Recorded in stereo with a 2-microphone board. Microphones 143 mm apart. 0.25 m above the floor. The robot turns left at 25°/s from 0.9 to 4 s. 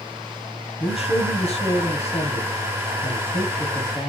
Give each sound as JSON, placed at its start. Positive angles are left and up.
{"t": 0.8, "sound": "a man speaking", "azimuth_deg": 110, "distance_m": 1.9}